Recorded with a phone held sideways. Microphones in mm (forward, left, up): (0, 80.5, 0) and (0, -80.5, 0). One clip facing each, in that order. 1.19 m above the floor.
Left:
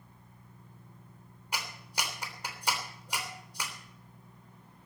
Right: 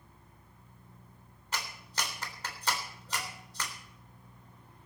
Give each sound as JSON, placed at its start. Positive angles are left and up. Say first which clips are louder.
{"t": 1.5, "sound": "a clap", "louder": "even", "side_deg": 10, "distance_m": 3.0}